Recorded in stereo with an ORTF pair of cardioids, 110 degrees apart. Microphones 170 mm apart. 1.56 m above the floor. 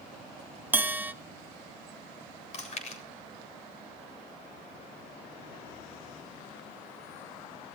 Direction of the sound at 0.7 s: 10° right.